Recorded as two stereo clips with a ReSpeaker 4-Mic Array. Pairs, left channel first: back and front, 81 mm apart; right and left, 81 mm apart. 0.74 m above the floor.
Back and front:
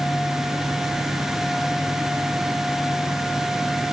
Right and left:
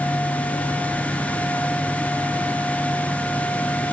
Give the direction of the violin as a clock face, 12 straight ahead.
No violin in this recording.